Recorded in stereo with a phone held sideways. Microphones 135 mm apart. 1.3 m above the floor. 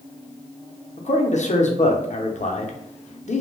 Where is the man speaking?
60° left (ahead or behind), 0.5 m.